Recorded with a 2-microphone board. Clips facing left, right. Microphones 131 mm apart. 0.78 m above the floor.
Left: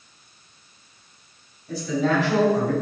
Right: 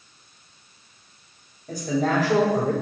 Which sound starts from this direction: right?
A man speaking, at 1.7 s.